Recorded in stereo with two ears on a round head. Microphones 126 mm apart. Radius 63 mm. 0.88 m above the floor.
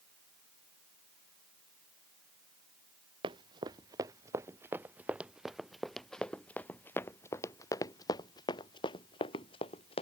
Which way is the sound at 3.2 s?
30° right (ahead or behind).